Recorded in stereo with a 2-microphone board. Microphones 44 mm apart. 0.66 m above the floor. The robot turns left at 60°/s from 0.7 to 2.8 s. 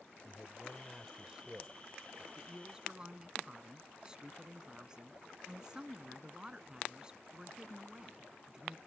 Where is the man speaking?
20° left; by 2.3 s 70° right.